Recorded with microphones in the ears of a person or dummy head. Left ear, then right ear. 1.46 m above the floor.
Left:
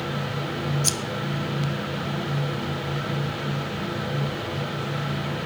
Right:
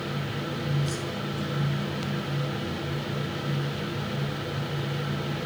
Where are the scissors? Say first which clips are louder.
Left 7 dB; 65° left (ahead or behind), 1.0 m.